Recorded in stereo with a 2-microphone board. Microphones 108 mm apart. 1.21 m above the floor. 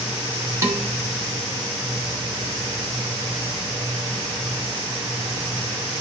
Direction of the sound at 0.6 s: 30° right (ahead or behind).